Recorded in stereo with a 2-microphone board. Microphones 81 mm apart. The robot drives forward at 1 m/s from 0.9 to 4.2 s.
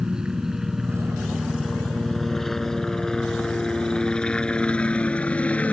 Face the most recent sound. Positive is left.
turn(degrees=20)  # may be behind; listen again after turning